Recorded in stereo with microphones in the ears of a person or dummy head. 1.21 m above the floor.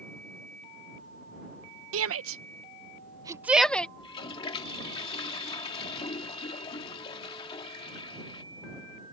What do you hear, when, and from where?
1.9 s a shout: 75° right (ahead or behind); by 3.9 s 10° left (ahead or behind)
4.0 s a toilet flushing: 25° left (ahead or behind)